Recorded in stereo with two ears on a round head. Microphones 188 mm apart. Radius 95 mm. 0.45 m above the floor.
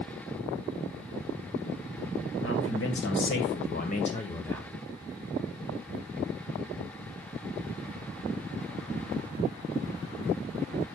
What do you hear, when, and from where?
2.4 s a man speaking: 70° left (ahead or behind), 2.5 m; by 4.7 s 5° left (ahead or behind), 1.8 m